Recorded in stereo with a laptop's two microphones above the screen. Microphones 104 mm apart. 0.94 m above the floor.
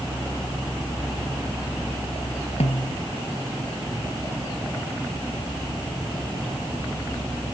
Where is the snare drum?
90° left.